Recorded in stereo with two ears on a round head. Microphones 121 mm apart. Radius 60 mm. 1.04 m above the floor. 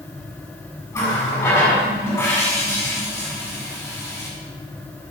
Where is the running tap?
20° left (ahead or behind), 5.5 m.